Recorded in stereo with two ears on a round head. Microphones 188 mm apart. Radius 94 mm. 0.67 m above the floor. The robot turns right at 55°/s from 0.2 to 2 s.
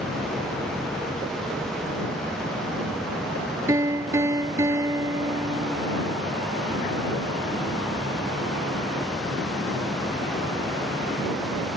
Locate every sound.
3.7 s a piano: 15° right (ahead or behind)